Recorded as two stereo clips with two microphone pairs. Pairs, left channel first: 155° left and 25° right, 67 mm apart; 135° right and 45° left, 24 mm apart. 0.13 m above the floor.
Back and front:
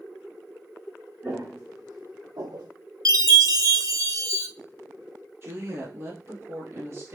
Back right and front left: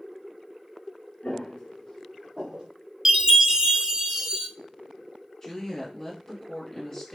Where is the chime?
10° right, 0.5 m.